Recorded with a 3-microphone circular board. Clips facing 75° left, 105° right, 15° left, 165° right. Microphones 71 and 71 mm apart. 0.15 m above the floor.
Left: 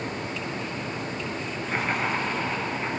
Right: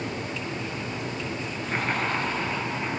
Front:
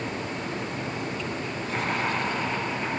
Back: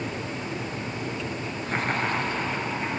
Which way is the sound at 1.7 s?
160° left.